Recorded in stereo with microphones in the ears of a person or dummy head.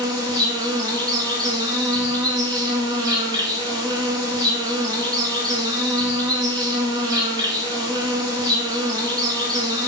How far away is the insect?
About 0.7 m.